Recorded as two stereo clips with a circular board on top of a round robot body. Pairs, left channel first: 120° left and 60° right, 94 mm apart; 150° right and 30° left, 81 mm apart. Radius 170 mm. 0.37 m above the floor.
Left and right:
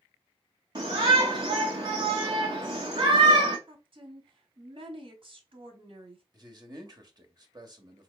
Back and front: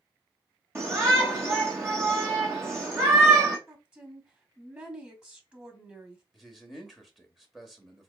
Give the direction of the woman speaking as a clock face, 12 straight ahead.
1 o'clock.